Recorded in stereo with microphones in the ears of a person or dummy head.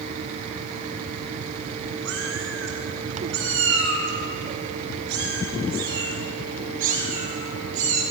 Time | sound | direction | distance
2.0 | a cat meowing | 75° right (ahead or behind) | 5.5 m